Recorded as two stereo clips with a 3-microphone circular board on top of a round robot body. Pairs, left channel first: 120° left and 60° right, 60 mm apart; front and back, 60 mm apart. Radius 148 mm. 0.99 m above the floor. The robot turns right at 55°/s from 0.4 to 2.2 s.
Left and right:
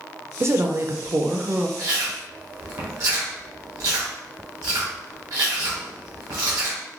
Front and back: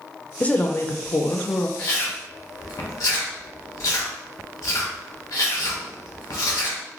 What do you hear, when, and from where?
0.4 s a woman speaking: 60° right, 0.6 m; by 1.7 s 10° left, 0.6 m
1.8 s chewing: 55° right, 0.6 m; by 6.8 s 35° right, 0.6 m